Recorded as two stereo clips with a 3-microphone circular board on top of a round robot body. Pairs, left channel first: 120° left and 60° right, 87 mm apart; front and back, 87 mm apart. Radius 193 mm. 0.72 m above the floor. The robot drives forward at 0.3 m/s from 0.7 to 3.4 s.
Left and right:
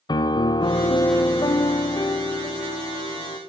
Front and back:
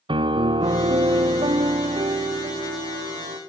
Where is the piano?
155° left, 1.0 m; by 3.4 s 165° left, 1.8 m.